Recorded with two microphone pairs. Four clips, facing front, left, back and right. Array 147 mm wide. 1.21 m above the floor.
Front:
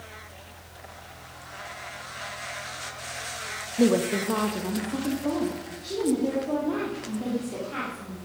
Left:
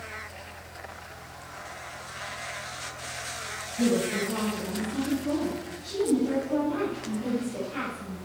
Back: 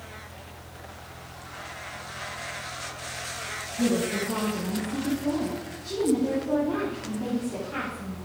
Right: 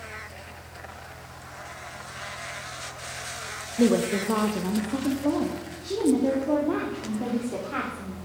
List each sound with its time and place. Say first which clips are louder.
3.8 s a woman speaking: right 4 dB, front 4 dB; 40° right, 0.9 m; by 8.2 s 80° right, 3.5 m